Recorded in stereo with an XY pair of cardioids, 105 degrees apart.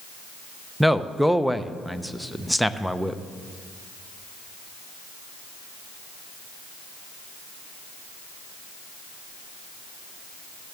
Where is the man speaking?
5° right, 0.7 m.